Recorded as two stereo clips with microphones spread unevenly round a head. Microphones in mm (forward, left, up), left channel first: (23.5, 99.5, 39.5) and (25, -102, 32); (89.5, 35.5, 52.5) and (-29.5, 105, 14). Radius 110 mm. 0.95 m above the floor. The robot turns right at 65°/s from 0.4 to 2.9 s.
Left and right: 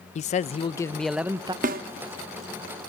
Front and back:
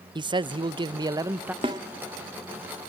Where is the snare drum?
135° right, 0.5 m; by 1.8 s 125° right, 0.5 m.